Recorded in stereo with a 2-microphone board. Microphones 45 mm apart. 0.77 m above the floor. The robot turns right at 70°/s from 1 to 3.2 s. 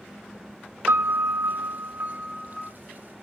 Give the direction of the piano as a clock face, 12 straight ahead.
4 o'clock.